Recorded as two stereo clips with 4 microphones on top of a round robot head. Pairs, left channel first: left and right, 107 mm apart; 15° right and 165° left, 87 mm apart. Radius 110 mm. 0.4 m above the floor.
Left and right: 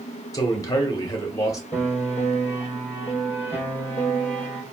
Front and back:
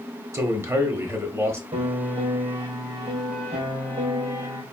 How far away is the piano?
About 2.5 m.